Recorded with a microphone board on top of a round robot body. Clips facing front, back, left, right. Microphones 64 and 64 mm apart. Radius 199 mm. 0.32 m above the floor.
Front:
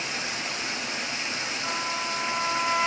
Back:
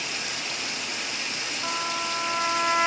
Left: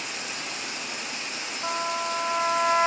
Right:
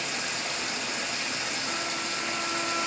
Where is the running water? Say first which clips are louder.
Front 1 dB, right 2 dB; 60° right, 2.5 m.